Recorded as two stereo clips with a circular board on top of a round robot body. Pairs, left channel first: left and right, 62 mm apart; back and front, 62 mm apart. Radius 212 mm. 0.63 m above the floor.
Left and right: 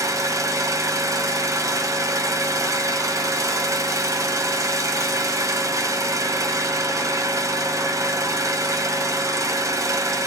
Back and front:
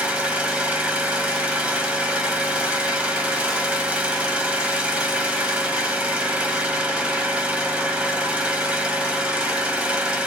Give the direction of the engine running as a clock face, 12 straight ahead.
2 o'clock.